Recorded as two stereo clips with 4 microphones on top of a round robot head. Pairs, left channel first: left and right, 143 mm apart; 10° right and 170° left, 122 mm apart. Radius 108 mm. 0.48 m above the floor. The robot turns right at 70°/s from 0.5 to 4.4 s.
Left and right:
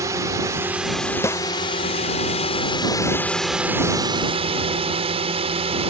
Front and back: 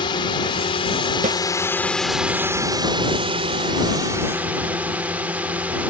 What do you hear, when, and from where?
0.0 s a drone: 30° right; by 5.9 s 115° right
1.2 s a snare drum: 160° left; by 1.4 s 170° left